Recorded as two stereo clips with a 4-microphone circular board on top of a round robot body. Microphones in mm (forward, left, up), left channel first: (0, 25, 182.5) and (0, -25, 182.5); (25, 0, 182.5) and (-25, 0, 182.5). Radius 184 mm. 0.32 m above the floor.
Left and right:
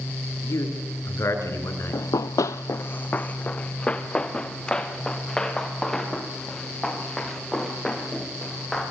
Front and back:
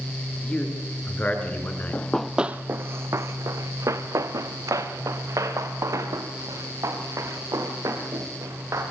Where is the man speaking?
70° left, 7.5 m; by 2.0 s 55° left, 6.5 m.